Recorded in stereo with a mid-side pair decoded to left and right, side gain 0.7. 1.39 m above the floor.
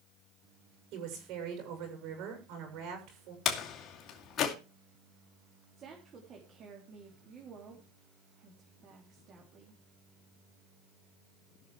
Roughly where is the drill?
No drill in this recording.